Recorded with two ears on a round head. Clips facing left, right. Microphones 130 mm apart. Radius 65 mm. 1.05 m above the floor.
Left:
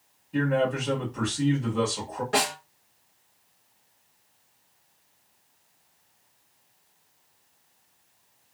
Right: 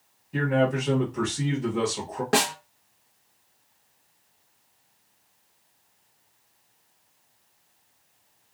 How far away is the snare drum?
About 0.9 m.